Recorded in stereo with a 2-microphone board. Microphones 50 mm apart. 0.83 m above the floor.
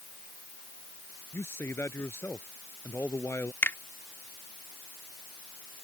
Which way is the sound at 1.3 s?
55° left (ahead or behind).